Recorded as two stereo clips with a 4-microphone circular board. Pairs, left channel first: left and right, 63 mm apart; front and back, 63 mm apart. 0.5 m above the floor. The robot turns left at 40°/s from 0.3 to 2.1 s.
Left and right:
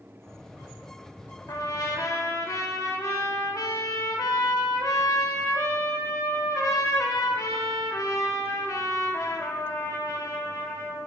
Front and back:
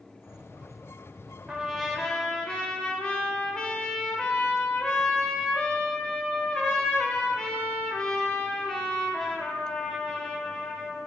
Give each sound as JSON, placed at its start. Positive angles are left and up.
{"t": 1.5, "sound": "a trumpet", "azimuth_deg": 95, "distance_m": 0.9}